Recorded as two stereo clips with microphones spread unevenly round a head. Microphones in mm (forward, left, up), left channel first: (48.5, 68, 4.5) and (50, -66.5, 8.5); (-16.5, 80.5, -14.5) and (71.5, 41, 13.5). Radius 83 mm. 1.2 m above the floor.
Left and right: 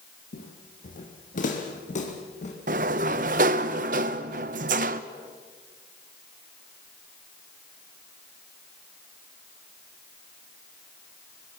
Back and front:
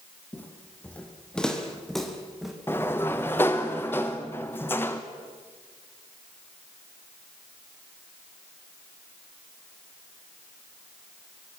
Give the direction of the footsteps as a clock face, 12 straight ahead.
9 o'clock.